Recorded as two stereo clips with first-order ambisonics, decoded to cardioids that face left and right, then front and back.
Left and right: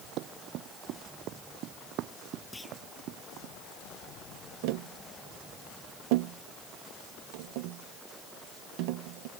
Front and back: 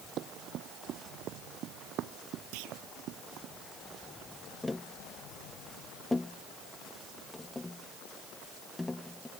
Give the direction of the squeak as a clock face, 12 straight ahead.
No squeak in this recording.